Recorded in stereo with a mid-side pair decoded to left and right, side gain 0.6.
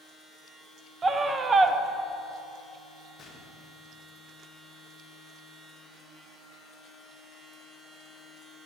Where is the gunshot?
30° left, 1.1 m.